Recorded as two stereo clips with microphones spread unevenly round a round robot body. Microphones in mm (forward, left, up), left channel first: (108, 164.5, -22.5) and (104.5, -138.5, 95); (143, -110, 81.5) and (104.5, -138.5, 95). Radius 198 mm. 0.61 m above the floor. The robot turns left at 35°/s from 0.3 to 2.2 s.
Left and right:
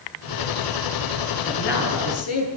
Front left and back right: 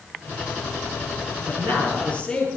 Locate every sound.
1.5 s a man speaking: 155° left, 8.5 m; by 2.5 s 130° left, 8.5 m